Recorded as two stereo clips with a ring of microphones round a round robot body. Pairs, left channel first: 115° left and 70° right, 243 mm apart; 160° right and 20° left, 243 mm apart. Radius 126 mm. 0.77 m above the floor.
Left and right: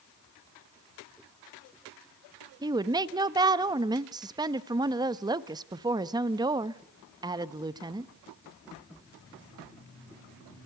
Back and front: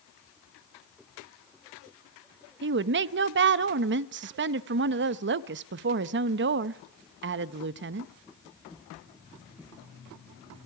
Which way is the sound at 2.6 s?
Straight ahead.